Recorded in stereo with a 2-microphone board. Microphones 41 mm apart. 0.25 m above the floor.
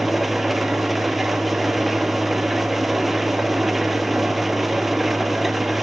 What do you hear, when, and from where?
0.0 s an engine running: 5° right (ahead or behind), 1.4 m